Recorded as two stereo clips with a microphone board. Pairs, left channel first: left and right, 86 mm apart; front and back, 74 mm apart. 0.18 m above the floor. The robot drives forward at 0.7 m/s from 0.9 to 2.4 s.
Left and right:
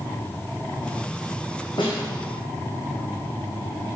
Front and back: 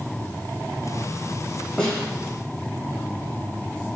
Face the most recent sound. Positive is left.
turn(degrees=85)